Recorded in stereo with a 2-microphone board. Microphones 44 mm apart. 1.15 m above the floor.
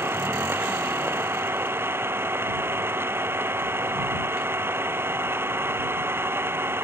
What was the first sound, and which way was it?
An engine running, 60° right (ahead or behind).